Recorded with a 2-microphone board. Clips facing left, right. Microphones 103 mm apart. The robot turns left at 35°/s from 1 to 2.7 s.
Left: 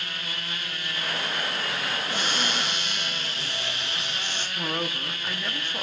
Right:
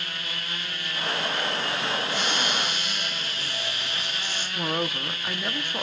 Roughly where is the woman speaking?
Centre.